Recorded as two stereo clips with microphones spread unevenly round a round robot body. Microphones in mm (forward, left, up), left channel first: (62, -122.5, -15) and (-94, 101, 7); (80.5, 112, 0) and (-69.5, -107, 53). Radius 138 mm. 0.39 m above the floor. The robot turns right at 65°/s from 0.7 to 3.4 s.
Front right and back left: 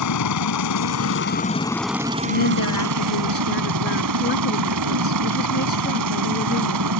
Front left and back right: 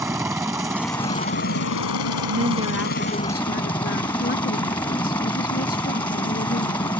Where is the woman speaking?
75° right; by 6.9 s straight ahead.